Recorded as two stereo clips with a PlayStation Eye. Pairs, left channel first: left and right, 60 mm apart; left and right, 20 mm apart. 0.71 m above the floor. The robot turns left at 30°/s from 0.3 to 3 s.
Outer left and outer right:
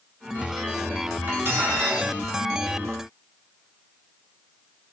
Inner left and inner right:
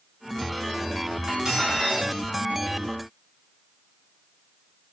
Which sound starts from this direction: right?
Cutlery clinking, at 1.3 s.